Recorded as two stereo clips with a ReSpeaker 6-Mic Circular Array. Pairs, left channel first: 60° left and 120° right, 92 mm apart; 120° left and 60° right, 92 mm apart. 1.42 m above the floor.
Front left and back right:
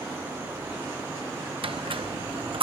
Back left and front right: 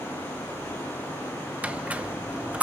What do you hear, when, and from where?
1.6 s a squeak: 135° right, 0.8 m